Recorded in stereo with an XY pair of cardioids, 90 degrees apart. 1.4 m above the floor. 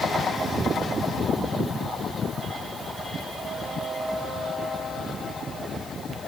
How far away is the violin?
No violin in this recording.